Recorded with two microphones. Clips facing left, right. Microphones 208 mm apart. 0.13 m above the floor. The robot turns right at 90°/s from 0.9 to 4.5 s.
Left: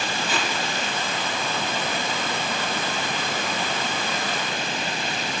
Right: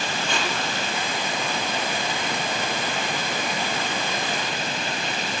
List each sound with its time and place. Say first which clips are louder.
0.3 s tape being pulled: right 1 dB; 5° left (ahead or behind), 0.9 m